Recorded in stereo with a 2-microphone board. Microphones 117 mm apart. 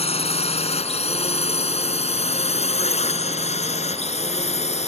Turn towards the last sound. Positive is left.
turn(degrees=60)  # may be behind; listen again after turning